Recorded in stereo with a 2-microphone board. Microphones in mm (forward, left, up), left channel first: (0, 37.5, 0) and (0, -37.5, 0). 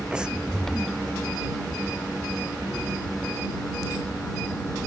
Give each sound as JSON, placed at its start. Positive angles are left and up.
{"t": 0.1, "sound": "breathing", "side_deg": -15}